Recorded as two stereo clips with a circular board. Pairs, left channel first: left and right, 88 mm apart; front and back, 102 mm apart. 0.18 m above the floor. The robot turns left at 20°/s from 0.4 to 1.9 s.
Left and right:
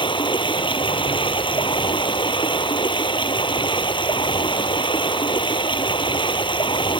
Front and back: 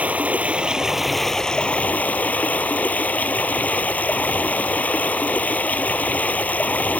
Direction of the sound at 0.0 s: 105° left.